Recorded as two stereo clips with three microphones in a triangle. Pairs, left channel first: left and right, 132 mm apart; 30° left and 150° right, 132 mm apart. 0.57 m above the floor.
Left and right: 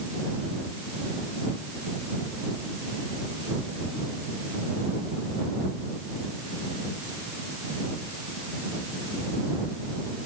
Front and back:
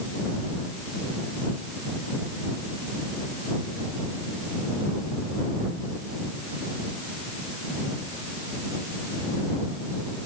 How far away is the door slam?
No door slam in this recording.